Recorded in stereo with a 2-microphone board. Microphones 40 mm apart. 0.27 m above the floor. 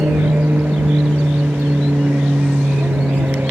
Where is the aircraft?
65° right (ahead or behind); by 3.5 s 60° right (ahead or behind).